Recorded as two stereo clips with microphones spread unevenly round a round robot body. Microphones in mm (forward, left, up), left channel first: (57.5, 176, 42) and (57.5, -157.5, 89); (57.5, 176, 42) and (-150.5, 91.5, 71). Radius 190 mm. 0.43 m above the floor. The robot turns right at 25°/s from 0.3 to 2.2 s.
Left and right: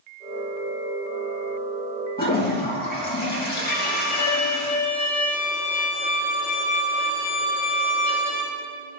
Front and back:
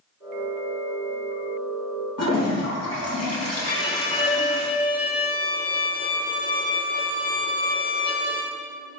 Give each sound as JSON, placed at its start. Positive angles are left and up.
{"t": 2.2, "sound": "a toilet flushing", "azimuth_deg": 30, "distance_m": 4.0}
{"t": 3.7, "sound": "a violin", "azimuth_deg": 70, "distance_m": 4.5}